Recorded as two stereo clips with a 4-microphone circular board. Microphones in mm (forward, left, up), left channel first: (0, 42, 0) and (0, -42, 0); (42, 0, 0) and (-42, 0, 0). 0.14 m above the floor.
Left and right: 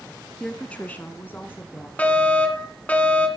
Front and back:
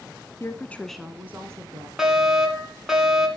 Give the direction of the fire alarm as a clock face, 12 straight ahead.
8 o'clock.